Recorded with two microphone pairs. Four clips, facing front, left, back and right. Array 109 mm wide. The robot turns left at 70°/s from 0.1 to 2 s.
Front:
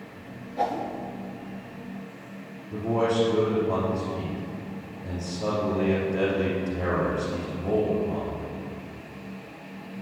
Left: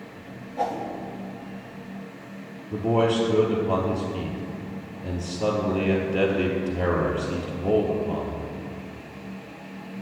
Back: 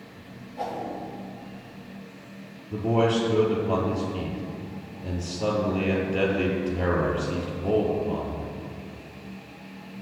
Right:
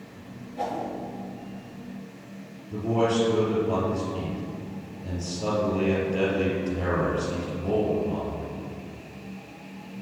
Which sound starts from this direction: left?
A man speaking, at 2.7 s.